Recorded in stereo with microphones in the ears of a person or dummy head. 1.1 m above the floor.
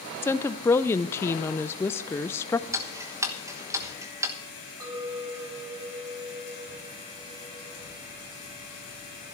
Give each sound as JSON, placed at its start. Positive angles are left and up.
{"t": 0.2, "sound": "a woman speaking", "side_deg": 10, "distance_m": 0.5}
{"t": 2.7, "sound": "ticking", "side_deg": -20, "distance_m": 1.1}
{"t": 4.8, "sound": "a clink", "side_deg": -25, "distance_m": 2.5}